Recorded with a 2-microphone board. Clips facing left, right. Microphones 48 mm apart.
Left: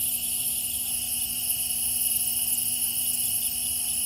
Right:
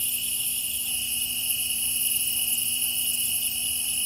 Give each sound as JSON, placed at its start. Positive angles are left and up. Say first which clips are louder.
{"t": 0.0, "sound": "an insect", "louder": "right 5 dB", "side_deg": -50}